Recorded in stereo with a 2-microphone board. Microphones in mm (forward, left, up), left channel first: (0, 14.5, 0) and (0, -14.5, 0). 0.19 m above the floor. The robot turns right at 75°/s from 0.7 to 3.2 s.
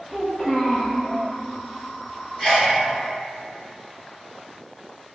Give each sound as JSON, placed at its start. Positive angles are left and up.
{"t": 0.1, "sound": "a child speaking", "side_deg": 35, "distance_m": 1.2}
{"t": 2.4, "sound": "a sneeze", "side_deg": 15, "distance_m": 1.2}